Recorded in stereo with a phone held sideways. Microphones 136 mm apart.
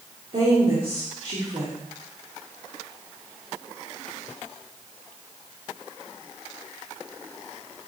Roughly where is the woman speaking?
Right.